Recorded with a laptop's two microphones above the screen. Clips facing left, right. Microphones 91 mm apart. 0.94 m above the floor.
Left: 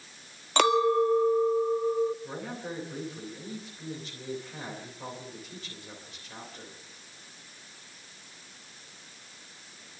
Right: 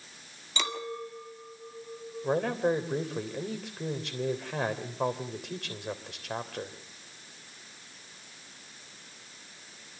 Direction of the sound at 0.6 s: 55° left (ahead or behind).